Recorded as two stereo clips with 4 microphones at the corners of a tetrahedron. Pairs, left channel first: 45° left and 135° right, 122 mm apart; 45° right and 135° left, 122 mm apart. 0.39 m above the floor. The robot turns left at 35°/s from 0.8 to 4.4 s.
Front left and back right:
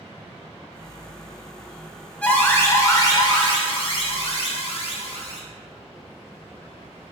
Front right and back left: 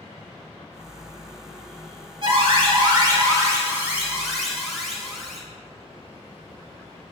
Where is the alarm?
120° left, 0.8 m; by 5.4 s 45° left, 0.8 m.